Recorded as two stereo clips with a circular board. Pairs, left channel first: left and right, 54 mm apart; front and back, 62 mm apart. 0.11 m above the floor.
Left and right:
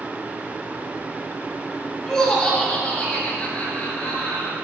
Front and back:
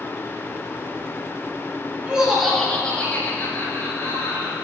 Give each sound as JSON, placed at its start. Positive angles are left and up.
{"t": 2.1, "sound": "laughter", "azimuth_deg": 150, "distance_m": 1.1}